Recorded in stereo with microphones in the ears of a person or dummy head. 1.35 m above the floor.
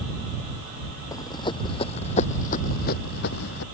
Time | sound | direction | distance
1.1 | running footsteps | 20° left (ahead or behind) | ?